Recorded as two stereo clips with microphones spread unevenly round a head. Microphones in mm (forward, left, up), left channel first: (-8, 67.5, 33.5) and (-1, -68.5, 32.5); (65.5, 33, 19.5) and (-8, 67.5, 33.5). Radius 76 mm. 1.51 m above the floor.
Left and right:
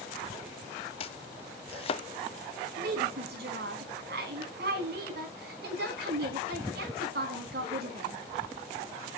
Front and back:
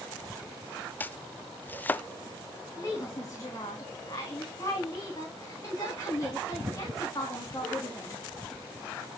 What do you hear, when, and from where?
1.0 s chopping: 45° left, 0.6 m
2.8 s a woman speaking: 90° right, 3 m